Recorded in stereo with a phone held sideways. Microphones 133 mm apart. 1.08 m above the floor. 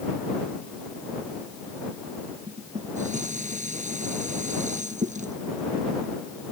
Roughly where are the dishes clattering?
Right.